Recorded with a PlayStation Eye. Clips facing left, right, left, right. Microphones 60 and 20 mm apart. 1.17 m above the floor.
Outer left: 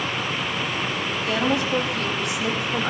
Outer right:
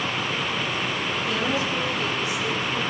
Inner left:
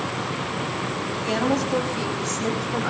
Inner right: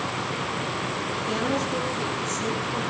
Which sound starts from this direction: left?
A woman speaking, at 1.2 s.